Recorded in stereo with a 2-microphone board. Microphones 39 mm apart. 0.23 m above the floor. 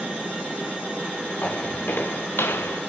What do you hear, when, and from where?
1.4 s footsteps: 45° left (ahead or behind), 1.9 m; by 2.8 s 80° left, 1.1 m